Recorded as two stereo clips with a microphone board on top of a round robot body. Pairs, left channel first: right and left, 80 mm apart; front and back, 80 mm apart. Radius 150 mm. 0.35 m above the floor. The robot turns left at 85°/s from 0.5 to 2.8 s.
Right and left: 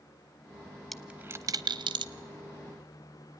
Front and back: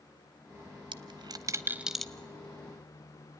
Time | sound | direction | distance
0.9 | a dropped coin | 175° right | 0.8 m